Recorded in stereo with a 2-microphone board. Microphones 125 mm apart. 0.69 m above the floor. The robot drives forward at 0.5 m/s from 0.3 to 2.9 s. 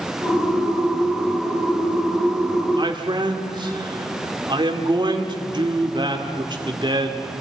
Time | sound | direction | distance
2.7 | a man speaking | 40° right (ahead or behind) | 2.5 m